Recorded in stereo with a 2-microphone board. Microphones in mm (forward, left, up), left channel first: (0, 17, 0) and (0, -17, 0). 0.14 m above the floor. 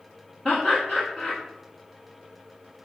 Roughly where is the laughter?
Centre.